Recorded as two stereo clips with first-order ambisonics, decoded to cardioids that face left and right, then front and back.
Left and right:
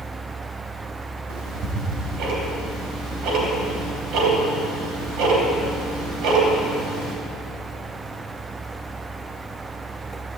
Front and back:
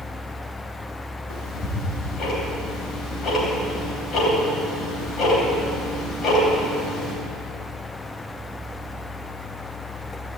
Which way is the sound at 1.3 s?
60° right.